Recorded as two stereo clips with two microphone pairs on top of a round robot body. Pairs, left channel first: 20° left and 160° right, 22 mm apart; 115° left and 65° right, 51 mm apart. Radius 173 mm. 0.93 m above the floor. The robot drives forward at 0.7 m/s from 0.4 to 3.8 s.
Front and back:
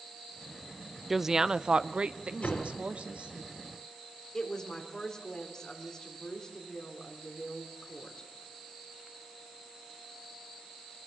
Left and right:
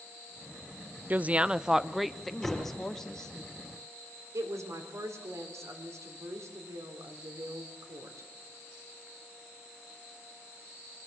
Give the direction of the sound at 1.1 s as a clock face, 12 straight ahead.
3 o'clock.